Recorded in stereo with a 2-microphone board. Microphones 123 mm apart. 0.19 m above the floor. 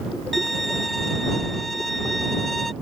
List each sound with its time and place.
0.3 s a violin: centre (ahead or behind)